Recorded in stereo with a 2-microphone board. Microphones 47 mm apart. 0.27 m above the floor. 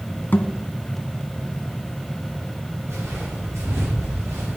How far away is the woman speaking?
No woman speaking in this recording.